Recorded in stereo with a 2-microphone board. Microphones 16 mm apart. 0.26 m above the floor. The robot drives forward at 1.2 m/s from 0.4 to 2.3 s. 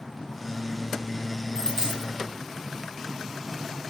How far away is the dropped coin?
About 5 m.